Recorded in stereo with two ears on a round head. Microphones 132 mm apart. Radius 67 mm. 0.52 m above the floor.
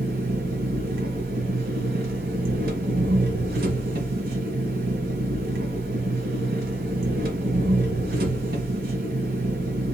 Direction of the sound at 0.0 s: 75° right (ahead or behind).